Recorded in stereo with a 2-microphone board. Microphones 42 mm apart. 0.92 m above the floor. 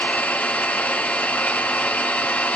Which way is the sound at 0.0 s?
45° left (ahead or behind).